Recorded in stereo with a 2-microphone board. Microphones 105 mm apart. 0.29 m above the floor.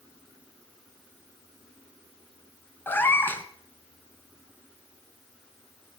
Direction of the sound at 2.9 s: 20° left (ahead or behind).